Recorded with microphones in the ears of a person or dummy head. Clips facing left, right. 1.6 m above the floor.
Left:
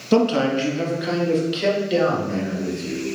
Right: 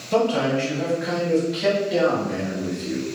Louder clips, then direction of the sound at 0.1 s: Left 3 dB; 55° left (ahead or behind).